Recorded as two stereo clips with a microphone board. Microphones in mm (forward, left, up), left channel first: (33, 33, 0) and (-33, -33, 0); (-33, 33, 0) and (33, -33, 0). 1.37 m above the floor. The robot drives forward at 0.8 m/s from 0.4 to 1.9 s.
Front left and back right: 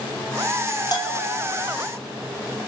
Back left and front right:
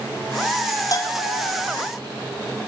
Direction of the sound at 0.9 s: 85° left.